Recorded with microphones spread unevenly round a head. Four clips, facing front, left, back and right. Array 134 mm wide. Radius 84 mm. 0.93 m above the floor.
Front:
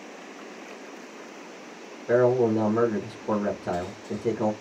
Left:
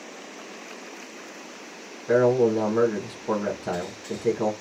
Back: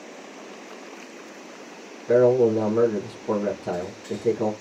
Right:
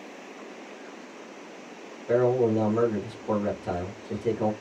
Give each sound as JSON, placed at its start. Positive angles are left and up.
{"t": 2.1, "sound": "a man speaking", "azimuth_deg": 40, "distance_m": 1.5}